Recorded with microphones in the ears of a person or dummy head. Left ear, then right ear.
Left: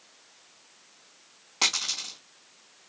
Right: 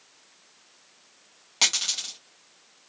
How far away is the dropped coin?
About 2.5 m.